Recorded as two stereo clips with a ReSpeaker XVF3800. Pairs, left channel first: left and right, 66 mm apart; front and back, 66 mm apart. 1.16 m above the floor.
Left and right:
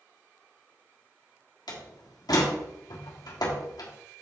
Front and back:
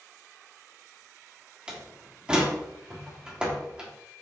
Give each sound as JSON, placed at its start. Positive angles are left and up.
{"t": 1.7, "sound": "a door slam", "azimuth_deg": 105, "distance_m": 1.5}